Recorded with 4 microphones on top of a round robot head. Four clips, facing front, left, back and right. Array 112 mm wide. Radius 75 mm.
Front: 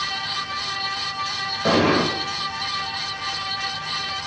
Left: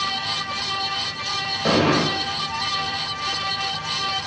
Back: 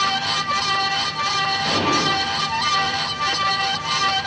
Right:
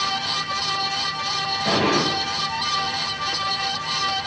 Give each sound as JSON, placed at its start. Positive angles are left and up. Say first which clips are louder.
{"t": 1.6, "sound": "an explosion", "louder": "left 2 dB, front 5 dB", "azimuth_deg": 45, "distance_m": 3.5}